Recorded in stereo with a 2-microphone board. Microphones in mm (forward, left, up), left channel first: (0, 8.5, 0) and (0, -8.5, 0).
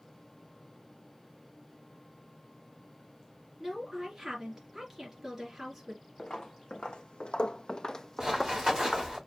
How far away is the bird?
No bird in this recording.